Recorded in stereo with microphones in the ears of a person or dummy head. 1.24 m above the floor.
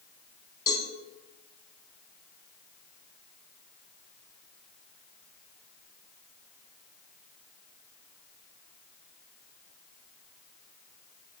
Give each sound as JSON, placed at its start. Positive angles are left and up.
{"t": 0.7, "sound": "a cowbell", "side_deg": 25, "distance_m": 1.6}